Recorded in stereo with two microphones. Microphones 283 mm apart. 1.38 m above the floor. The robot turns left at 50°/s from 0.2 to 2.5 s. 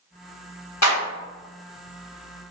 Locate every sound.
0.8 s a clap: 70° left (ahead or behind), 1.6 m; by 1.0 s 65° left (ahead or behind), 1.6 m